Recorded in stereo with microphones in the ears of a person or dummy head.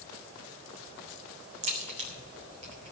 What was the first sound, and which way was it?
A crack, 35° right (ahead or behind).